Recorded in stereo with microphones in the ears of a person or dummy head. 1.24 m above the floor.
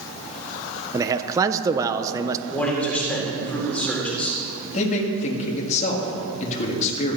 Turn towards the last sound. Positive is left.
turn(degrees=35)  # may be behind; listen again after turning